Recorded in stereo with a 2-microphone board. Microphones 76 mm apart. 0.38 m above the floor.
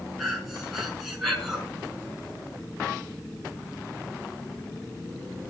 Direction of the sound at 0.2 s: Centre (ahead or behind).